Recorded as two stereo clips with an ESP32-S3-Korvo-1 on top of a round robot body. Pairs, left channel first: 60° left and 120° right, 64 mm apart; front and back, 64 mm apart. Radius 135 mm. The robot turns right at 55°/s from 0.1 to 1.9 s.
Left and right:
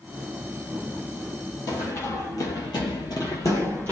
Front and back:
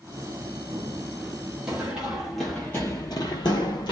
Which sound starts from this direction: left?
Running footsteps, at 1.7 s.